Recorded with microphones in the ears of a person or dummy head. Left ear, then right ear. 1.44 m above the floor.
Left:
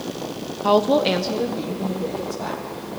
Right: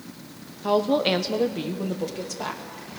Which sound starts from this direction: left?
A woman speaking, at 0.6 s.